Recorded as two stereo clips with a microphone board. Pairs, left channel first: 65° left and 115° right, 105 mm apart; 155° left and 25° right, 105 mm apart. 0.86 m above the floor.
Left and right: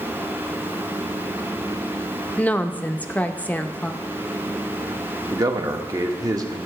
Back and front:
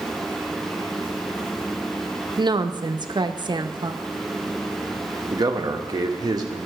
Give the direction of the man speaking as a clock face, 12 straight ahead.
2 o'clock.